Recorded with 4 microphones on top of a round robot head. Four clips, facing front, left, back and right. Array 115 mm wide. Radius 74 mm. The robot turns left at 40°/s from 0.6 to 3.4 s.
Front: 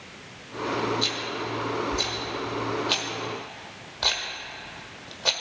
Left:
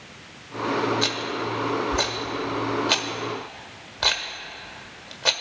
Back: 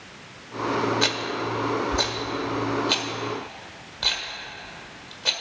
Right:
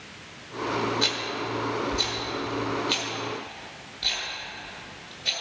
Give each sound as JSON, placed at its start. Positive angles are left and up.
{"t": 1.0, "sound": "a rattle", "azimuth_deg": 175, "distance_m": 1.3}